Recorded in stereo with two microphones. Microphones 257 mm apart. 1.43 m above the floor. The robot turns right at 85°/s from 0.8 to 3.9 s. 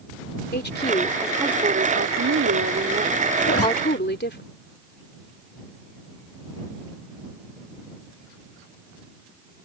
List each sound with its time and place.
0.5 s a woman speaking: 140° left; by 4.4 s 45° left
3.4 s a zipper: 45° left (ahead or behind); by 3.7 s 70° left (ahead or behind)